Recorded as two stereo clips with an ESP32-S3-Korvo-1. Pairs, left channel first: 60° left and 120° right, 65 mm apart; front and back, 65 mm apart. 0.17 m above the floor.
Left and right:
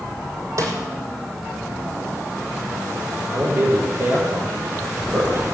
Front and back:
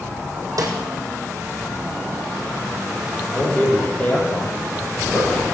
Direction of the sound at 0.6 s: 155° right.